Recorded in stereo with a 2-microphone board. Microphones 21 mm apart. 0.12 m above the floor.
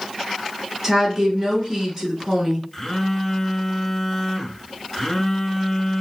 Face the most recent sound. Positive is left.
turn(degrees=20)  # may be behind; listen again after turning